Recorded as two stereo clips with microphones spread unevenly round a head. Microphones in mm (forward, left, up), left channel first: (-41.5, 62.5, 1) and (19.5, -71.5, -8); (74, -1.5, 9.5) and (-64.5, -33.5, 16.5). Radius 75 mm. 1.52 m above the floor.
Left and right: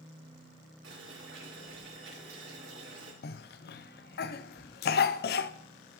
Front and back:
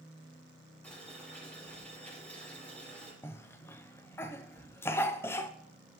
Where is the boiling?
70° right, 5 m.